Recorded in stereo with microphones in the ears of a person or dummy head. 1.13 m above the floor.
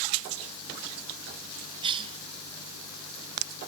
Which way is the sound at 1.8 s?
35° right (ahead or behind).